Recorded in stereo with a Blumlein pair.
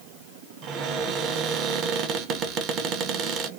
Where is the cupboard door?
35° right, 0.8 m.